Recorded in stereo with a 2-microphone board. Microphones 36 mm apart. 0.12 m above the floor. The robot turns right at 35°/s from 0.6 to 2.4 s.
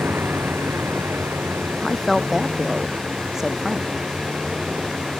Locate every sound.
0.0 s a vehicle: 70° right (ahead or behind); by 5.2 s 20° right (ahead or behind)
1.8 s a woman speaking: 10° left (ahead or behind); by 4.0 s 10° right (ahead or behind)